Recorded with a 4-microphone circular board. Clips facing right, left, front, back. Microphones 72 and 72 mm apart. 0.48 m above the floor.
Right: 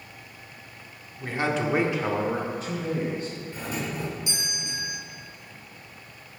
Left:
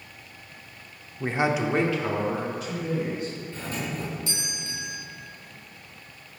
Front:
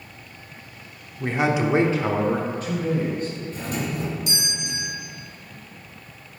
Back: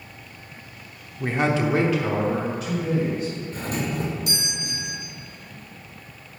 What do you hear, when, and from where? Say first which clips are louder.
1.2 s a man speaking: left 2 dB, even; 105° left, 0.9 m; by 3.3 s 45° right, 2.5 m
3.5 s a doorbell: right 1 dB, back 1 dB; 160° right, 2.0 m